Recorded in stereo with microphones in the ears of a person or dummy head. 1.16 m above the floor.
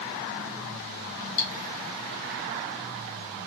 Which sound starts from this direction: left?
Cutlery clinking, at 1.4 s.